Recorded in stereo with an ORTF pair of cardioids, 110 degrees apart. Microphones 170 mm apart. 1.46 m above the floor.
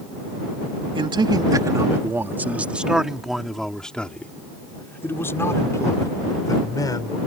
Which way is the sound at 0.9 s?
30° right.